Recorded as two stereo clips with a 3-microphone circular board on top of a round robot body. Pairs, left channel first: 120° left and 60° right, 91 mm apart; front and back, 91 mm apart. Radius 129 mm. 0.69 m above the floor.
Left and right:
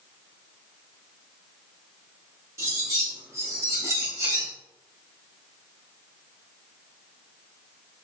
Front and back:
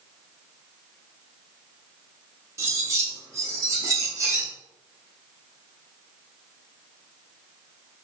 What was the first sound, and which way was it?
Cutlery clinking, 120° right.